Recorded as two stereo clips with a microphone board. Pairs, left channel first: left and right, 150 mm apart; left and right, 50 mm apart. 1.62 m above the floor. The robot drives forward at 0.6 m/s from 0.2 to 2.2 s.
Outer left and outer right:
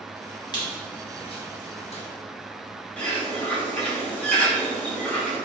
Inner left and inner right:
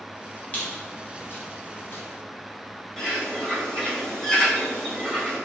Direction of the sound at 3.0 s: 10° left (ahead or behind).